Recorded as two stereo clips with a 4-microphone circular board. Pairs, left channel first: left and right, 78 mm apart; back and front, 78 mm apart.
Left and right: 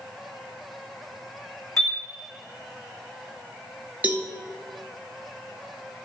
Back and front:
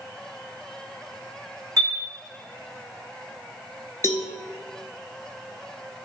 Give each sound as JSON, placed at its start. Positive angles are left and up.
{"t": 1.8, "sound": "a chime", "azimuth_deg": 45, "distance_m": 1.4}
{"t": 4.0, "sound": "a cowbell", "azimuth_deg": -150, "distance_m": 0.6}